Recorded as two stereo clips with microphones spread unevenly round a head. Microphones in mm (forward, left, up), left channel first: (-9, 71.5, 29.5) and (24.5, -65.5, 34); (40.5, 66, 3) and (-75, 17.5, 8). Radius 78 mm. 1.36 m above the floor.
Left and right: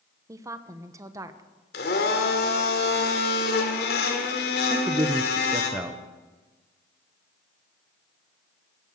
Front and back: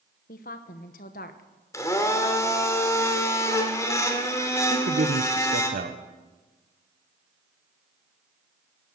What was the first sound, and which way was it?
A woman speaking, 5° right.